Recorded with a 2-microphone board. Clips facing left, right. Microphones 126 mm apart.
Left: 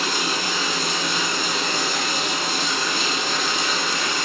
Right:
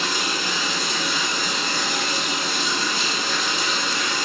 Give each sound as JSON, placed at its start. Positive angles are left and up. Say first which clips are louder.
{"t": 0.0, "sound": "running water", "louder": "left 1 dB", "side_deg": 50, "distance_m": 3.0}